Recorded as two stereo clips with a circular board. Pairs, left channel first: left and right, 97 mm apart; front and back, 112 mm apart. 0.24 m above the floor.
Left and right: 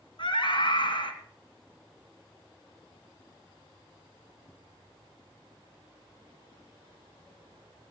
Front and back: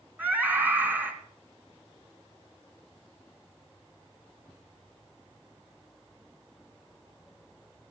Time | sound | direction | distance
0.2 | a scream | 105° left | 3 m